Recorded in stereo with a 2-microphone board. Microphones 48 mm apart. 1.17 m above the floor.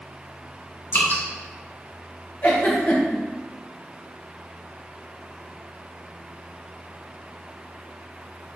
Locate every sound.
0.9 s dripping: 45° left (ahead or behind), 2 m
2.4 s a giggle: 45° left (ahead or behind), 1.6 m